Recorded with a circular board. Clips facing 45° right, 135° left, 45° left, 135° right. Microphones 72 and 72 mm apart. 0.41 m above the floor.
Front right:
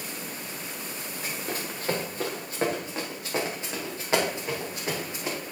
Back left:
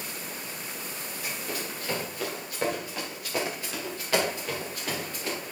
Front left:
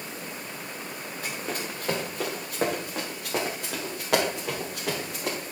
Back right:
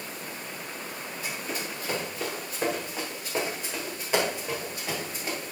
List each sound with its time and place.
1.2 s running footsteps: 5° left, 3 m; by 5.4 s 25° left, 6 m